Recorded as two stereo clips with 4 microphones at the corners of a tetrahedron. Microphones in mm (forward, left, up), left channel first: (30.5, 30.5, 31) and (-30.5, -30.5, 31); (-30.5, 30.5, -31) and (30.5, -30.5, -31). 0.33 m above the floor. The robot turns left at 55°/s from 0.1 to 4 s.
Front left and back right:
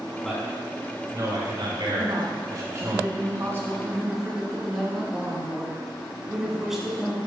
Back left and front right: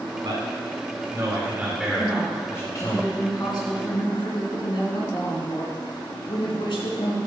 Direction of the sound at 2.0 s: 110° right.